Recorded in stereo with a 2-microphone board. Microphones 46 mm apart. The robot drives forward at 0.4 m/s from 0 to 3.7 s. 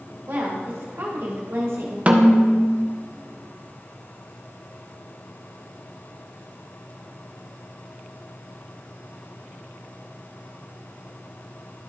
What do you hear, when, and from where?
0.3 s a woman speaking: 60° right (ahead or behind), 2.5 m; by 2.0 s 75° right (ahead or behind), 2 m
2.1 s a snare drum: 25° right (ahead or behind), 0.8 m; by 2.8 s 20° right (ahead or behind), 1.0 m